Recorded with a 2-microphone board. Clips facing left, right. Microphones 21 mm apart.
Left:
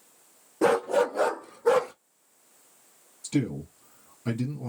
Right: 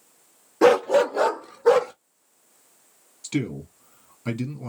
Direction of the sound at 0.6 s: 55° right (ahead or behind).